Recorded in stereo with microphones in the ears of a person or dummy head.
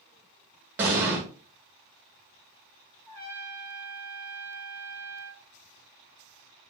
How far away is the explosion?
About 0.8 m.